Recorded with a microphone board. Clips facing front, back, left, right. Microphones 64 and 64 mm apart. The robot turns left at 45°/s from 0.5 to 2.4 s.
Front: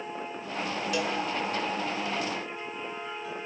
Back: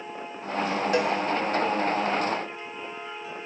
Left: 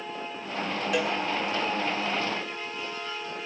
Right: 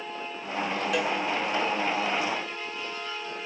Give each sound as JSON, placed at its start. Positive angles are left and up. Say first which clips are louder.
{"t": 0.9, "sound": "a cowbell", "louder": "back 6 dB, left 1 dB", "azimuth_deg": 180, "distance_m": 1.8}